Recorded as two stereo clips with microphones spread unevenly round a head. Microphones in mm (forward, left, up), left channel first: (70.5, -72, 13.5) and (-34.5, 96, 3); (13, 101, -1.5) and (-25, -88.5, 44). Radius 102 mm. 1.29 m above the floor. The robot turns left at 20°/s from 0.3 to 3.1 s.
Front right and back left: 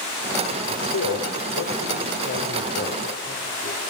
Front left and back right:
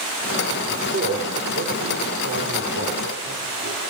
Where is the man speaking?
55° right, 5 m; by 3.8 s 100° right, 5 m.